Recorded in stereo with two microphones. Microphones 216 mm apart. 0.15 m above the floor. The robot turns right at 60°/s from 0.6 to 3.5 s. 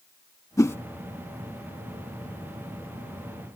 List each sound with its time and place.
0.6 s a whoosh: 15° left (ahead or behind); by 0.8 s 10° left (ahead or behind)